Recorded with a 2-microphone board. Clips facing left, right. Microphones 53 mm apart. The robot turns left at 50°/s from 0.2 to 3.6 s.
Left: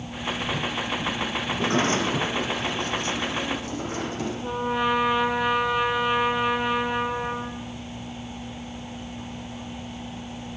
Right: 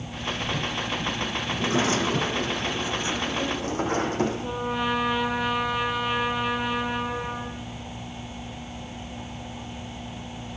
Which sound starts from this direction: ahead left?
A sliding door, at 1.5 s.